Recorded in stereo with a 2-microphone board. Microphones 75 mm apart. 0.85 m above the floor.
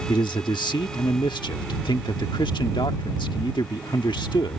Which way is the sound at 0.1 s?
80° left.